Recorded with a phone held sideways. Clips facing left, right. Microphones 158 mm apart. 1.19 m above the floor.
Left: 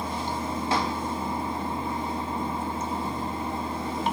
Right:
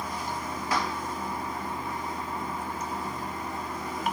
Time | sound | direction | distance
0.0 | running water | 25° left (ahead or behind) | 0.8 m